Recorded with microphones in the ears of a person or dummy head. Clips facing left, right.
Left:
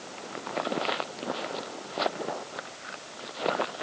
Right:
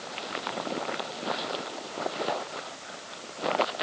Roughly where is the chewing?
No chewing in this recording.